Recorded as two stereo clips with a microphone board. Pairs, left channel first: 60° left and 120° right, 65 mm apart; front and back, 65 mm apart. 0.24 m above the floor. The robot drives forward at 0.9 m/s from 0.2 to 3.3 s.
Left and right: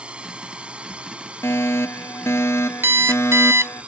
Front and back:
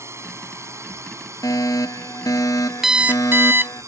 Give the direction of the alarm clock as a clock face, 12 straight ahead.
3 o'clock.